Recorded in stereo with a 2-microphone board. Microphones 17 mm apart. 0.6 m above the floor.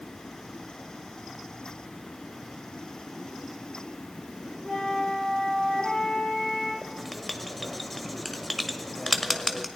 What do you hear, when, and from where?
4.7 s a flute: 75° left (ahead or behind), 7 m
6.8 s writing: 5° left (ahead or behind), 1.2 m